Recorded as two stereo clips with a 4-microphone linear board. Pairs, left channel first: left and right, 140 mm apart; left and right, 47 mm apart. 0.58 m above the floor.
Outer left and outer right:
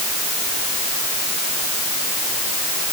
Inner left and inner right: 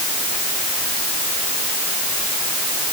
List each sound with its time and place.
Only background noise.